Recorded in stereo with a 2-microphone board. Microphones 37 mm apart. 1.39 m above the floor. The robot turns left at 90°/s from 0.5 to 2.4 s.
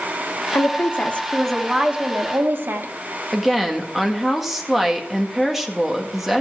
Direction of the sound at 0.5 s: 90° left.